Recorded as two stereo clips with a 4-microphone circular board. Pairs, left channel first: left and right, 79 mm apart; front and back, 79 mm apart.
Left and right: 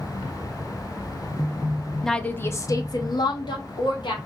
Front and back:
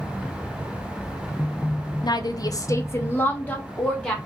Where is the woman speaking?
5° left, 0.5 m; by 4.2 s 80° left, 1.3 m.